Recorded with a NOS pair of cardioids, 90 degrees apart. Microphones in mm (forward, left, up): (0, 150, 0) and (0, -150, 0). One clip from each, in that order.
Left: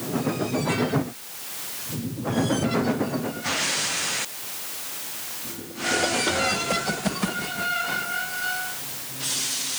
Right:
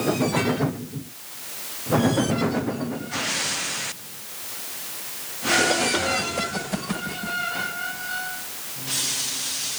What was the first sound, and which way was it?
Only background noise.